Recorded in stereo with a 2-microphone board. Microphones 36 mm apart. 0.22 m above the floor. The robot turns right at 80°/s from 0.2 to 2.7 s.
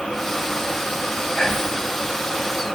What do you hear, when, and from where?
1.4 s whispering: 20° left (ahead or behind), 1.0 m; by 1.8 s 10° left (ahead or behind), 1.0 m